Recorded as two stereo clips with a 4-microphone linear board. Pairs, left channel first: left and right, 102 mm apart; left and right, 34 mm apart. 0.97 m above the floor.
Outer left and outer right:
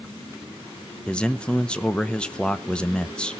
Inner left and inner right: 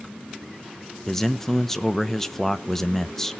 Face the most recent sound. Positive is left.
turn(degrees=10)  # may be behind; listen again after turning